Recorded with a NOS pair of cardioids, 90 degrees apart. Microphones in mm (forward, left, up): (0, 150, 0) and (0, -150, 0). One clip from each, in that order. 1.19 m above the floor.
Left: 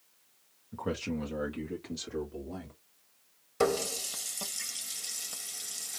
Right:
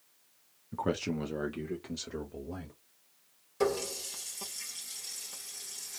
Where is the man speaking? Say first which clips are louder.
Right 2 dB; 25° right, 0.8 m; by 2.8 s 10° right, 1.9 m.